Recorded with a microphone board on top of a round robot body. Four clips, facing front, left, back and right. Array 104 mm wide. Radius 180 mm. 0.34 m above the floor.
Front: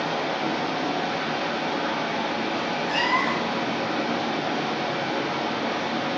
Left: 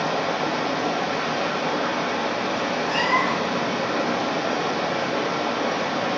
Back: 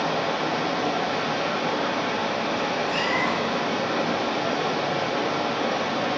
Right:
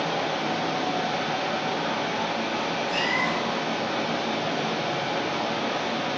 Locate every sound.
0.0 s running water: 115° left, 1.1 m
2.9 s a cat meowing: 55° left, 0.6 m